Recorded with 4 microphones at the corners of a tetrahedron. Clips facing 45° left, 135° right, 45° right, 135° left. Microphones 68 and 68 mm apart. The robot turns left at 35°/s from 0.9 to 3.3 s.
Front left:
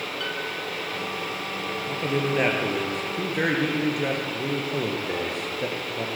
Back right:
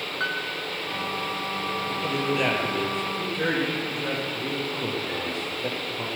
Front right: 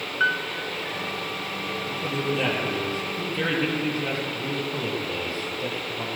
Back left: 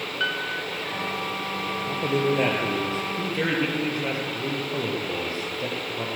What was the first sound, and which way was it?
A piano, 105° right.